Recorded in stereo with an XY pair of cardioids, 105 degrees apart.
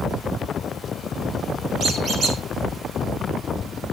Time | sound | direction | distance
1.8 | a squeak | 55° right | 3 m